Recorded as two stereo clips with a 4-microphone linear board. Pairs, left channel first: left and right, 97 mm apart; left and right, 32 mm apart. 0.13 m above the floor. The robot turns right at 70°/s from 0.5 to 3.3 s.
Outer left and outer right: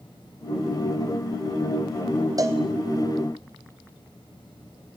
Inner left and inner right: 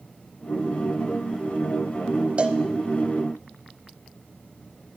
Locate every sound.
2.4 s a cowbell: 40° right (ahead or behind), 1.3 m; by 2.6 s 25° right (ahead or behind), 1.3 m